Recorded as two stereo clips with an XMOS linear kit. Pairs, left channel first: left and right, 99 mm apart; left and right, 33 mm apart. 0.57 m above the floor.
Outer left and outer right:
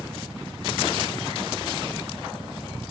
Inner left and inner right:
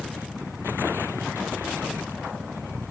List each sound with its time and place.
0.0 s a helicopter: 15° right (ahead or behind); by 2.9 s 10° right (ahead or behind)